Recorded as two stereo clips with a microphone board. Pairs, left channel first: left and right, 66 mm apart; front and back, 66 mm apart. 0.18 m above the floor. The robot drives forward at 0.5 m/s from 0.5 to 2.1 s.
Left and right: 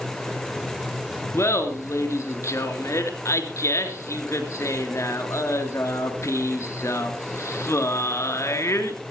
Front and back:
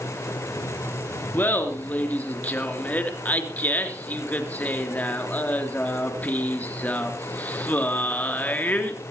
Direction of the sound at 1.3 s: 55° left.